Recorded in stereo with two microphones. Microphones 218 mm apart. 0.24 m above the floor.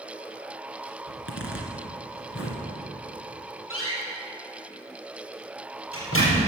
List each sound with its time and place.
1.1 s a zipper: 70° left (ahead or behind), 2 m
3.7 s a door slam: 75° left (ahead or behind), 4.5 m